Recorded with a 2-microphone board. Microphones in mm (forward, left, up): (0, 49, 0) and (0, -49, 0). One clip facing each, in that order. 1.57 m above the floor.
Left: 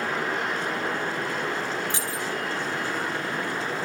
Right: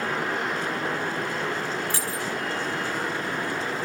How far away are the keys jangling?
About 2 m.